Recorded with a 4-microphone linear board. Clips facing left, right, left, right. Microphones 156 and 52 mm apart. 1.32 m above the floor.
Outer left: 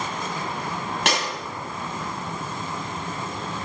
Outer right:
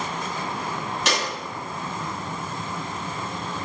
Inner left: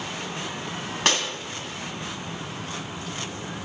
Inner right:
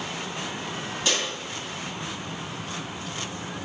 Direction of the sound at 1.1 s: 65° left (ahead or behind).